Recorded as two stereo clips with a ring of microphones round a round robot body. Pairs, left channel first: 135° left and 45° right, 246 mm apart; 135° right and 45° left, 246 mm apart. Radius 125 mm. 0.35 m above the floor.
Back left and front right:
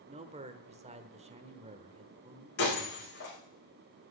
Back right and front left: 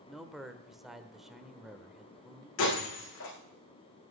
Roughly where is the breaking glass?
Behind.